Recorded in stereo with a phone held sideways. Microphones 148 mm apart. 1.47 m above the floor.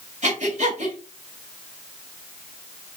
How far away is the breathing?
About 1.9 m.